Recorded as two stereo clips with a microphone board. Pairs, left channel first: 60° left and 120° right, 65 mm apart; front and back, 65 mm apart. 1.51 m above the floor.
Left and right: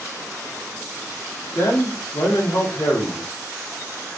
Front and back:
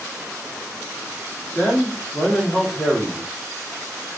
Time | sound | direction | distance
1.6 | a man speaking | 75° left | 1.9 m